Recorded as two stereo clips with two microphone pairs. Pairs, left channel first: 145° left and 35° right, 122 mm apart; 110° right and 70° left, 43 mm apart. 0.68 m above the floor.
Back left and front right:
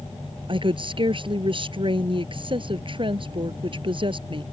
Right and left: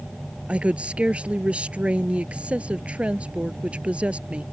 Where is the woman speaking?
10° left.